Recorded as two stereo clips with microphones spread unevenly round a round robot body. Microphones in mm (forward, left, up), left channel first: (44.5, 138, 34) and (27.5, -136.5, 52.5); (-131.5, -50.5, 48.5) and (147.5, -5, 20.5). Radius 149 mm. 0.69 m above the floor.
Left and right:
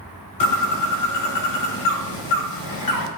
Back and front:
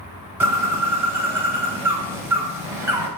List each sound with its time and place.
0.4 s a bird: 95° left, 1.8 m